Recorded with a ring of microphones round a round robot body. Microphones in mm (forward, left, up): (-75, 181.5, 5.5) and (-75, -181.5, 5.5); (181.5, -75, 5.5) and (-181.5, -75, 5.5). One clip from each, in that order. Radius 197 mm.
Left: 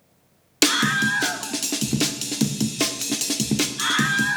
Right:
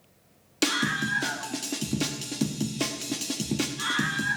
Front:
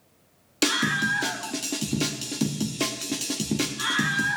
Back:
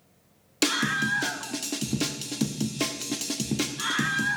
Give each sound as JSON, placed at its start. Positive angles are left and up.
{"t": 0.6, "sound": "a scream", "azimuth_deg": 100, "distance_m": 0.6}